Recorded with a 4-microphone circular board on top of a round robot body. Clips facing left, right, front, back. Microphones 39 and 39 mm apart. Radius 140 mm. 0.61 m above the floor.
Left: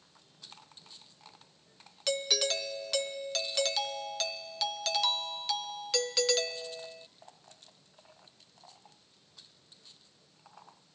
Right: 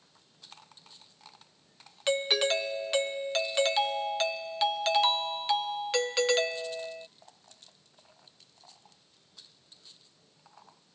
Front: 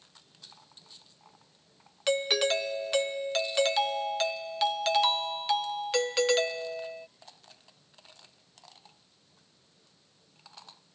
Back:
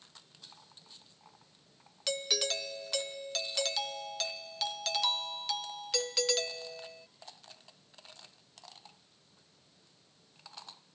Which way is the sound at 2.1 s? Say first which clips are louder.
Right 4 dB, front 7 dB; 40° right.